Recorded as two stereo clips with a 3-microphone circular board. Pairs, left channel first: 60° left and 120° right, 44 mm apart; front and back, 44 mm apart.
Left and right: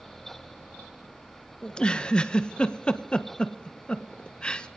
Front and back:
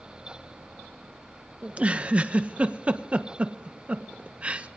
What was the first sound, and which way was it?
A giggle, 125° left.